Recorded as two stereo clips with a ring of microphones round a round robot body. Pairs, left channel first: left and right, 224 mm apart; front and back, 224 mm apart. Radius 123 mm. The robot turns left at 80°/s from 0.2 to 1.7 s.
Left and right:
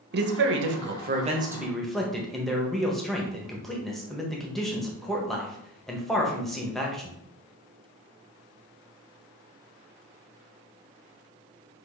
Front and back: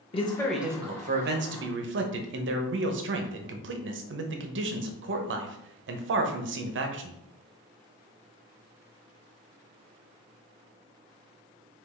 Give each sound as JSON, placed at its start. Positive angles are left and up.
{"t": 0.1, "sound": "a man speaking", "azimuth_deg": -60, "distance_m": 0.7}